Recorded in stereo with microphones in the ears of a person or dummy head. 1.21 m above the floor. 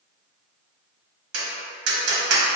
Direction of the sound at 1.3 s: 70° right (ahead or behind).